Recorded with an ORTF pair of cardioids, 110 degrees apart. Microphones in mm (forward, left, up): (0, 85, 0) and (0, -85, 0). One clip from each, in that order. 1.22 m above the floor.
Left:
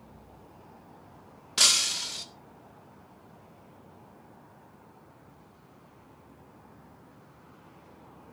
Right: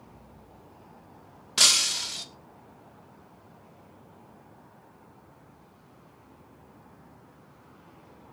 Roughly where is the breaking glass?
Ahead.